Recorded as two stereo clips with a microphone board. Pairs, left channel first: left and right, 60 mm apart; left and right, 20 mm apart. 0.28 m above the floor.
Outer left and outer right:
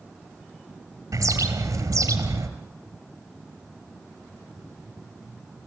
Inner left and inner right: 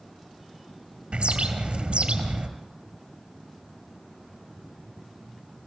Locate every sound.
1.1 s a bird: 70° right (ahead or behind), 2.5 m